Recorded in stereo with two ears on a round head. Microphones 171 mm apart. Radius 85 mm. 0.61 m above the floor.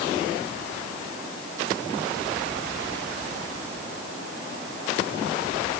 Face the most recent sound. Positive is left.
No sound to turn to.